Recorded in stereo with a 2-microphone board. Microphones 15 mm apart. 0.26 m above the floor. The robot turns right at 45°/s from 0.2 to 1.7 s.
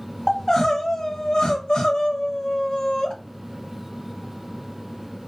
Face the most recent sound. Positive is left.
turn(degrees=95)